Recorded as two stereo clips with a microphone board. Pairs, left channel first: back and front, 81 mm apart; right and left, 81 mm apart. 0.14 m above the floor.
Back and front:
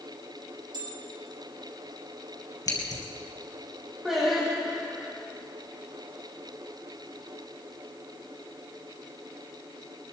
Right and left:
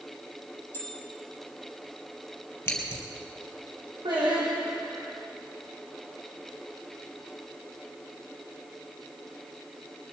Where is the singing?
85° left, 5.5 m.